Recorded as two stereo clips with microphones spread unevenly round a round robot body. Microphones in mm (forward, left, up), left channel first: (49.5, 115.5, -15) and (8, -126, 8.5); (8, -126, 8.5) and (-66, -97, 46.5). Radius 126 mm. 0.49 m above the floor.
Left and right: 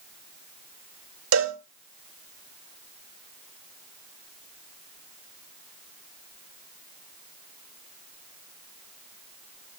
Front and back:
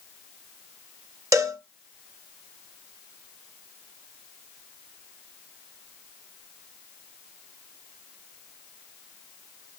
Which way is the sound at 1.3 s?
135° right.